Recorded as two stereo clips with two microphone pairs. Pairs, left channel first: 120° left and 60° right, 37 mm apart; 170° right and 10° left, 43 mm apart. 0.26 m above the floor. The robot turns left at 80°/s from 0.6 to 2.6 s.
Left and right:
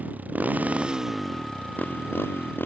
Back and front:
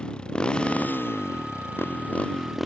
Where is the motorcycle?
105° right; by 2.7 s 95° left.